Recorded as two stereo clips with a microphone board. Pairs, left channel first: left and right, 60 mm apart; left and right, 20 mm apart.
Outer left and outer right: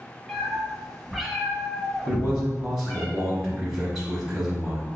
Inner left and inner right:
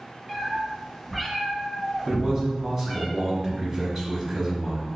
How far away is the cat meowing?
About 0.7 m.